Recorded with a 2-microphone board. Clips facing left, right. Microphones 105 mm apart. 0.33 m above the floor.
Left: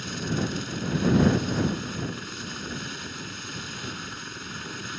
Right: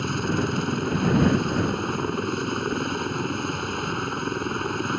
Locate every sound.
0.0 s a helicopter: 55° right (ahead or behind)